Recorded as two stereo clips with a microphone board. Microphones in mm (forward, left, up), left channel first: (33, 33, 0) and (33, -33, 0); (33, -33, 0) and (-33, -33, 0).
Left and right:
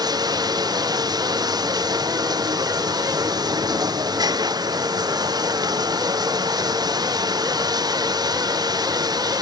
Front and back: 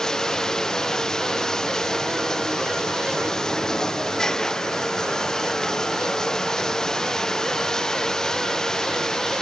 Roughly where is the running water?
Right.